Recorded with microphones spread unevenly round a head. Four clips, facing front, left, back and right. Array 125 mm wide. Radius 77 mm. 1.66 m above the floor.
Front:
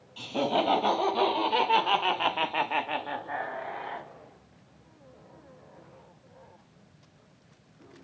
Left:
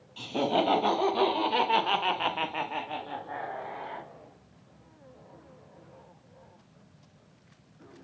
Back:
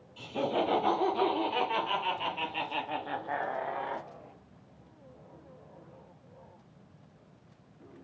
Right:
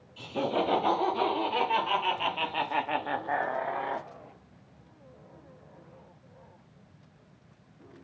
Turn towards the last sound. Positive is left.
turn(degrees=-100)